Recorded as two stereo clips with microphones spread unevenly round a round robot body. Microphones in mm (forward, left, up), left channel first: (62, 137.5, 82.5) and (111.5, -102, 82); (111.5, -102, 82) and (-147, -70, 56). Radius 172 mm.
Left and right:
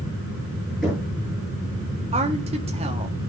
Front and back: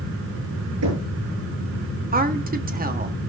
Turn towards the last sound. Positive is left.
turn(degrees=-140)